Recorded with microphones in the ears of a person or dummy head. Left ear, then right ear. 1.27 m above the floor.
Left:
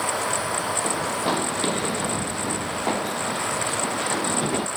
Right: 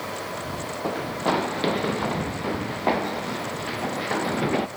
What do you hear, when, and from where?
0.8 s running footsteps: 10° right (ahead or behind)